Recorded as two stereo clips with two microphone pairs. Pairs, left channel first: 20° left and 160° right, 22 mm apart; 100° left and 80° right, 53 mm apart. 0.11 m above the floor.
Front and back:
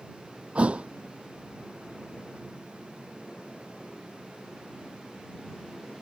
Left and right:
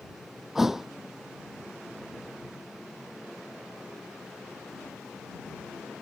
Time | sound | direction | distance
0.6 | a thud | 165° right | ?